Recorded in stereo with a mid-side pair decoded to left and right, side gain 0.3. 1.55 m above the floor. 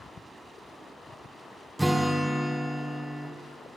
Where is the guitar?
15° right, 0.6 m.